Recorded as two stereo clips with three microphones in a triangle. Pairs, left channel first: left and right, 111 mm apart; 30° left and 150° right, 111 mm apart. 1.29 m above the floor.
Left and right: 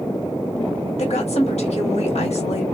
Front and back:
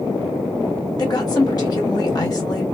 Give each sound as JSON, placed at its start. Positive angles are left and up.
{"t": 1.0, "sound": "a woman speaking", "azimuth_deg": 80, "distance_m": 1.2}